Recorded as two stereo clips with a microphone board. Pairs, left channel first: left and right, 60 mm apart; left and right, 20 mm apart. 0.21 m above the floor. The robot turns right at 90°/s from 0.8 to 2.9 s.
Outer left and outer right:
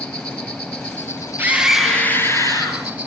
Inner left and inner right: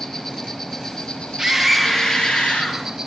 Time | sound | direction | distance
0.0 | an insect | 10° left | 4 m
1.4 | a scream | 35° right | 4 m